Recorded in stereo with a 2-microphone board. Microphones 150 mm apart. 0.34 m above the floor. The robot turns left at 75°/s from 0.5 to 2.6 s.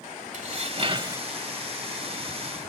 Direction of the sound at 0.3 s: 105° right.